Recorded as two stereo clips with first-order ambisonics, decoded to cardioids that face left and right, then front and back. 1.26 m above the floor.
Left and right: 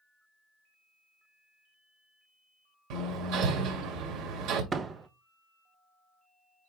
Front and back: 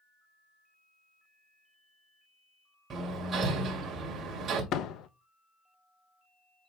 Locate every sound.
2.9 s hammering: 115° right, 2 m
4.7 s a door slam: 30° right, 0.6 m